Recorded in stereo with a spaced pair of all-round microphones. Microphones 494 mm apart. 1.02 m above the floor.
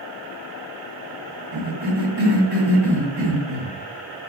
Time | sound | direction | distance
1.5 | a cough | 50° right (ahead or behind) | 1.1 m